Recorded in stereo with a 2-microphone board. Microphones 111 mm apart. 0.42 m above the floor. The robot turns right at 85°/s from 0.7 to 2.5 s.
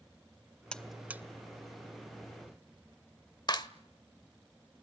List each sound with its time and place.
0.7 s a buzzer: 10° left (ahead or behind), 1.1 m; by 1.2 s 20° right (ahead or behind), 1.1 m
3.5 s a clap: 40° left (ahead or behind), 1.1 m